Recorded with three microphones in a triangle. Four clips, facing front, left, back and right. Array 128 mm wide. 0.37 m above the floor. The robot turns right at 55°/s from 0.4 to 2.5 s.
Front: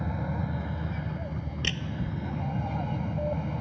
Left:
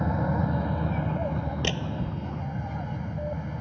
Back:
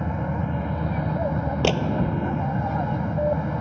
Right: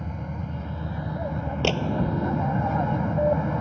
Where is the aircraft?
125° left; by 3.6 s 120° right.